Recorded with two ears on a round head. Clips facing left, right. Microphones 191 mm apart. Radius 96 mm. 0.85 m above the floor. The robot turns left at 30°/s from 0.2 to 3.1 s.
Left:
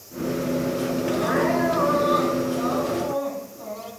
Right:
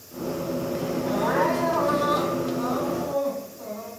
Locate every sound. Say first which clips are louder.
1.0 s crying: even; 80° right, 5.5 m; by 3.9 s 145° right, 5.5 m